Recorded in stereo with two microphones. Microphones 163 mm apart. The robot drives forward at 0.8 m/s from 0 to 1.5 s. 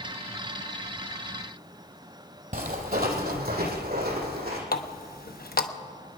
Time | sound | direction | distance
2.5 | footsteps | 55° right (ahead or behind) | 1.9 m
4.7 | a running tap | 65° left (ahead or behind) | 0.8 m